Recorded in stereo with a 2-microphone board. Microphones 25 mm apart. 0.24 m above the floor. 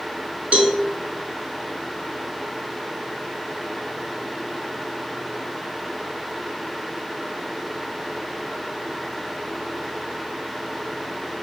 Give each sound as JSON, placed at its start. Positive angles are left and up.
{"t": 0.5, "sound": "a cowbell", "side_deg": -80, "distance_m": 0.5}